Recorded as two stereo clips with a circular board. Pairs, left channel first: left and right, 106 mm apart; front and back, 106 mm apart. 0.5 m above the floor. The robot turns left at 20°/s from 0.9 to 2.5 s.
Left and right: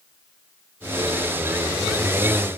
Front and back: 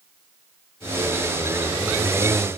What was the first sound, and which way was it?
Only background noise.